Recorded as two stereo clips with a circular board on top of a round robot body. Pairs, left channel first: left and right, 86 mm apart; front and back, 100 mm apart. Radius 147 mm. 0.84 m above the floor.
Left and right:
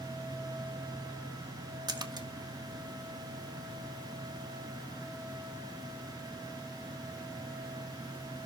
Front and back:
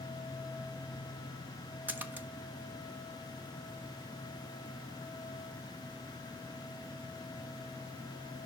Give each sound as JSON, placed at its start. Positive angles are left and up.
{"t": 1.9, "sound": "a splash", "azimuth_deg": -110, "distance_m": 1.1}